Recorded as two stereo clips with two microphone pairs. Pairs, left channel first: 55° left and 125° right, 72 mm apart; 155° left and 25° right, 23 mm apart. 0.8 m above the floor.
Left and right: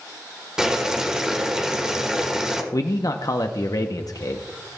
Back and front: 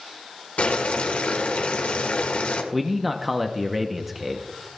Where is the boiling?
155° left, 1.4 m.